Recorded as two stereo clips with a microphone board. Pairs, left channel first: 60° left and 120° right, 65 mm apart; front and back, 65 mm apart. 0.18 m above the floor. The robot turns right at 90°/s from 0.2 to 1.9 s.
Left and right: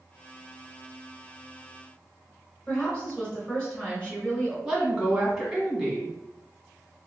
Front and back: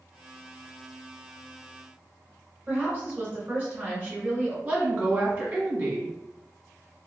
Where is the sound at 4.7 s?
155° left, 1.4 m.